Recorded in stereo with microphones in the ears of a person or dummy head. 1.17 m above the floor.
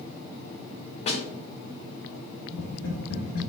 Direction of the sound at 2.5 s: 65° left (ahead or behind).